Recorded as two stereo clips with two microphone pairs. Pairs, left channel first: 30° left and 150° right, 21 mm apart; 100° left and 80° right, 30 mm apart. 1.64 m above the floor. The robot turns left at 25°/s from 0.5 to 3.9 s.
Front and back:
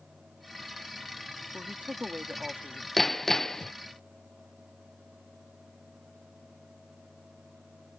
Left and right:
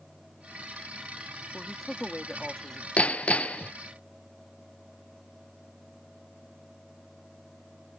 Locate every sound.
1.5 s a woman speaking: 165° right; by 2.9 s 160° left
3.0 s hammering: 105° left; by 3.7 s 85° left